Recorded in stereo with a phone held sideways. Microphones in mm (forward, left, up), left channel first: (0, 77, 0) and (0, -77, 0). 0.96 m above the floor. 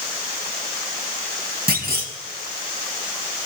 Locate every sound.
1.7 s a clunk: 70° right (ahead or behind), 2.5 m